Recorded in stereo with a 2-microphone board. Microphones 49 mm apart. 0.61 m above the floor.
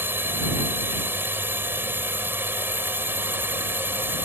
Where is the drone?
50° right (ahead or behind).